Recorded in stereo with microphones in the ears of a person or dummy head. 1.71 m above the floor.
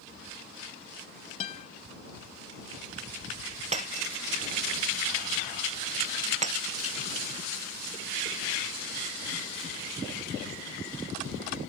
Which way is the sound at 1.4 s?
35° left (ahead or behind).